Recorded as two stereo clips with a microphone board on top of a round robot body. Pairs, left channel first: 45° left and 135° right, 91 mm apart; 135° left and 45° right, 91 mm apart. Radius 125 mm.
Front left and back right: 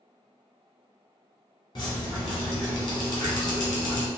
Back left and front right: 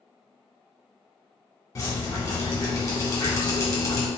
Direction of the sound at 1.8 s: 80° left.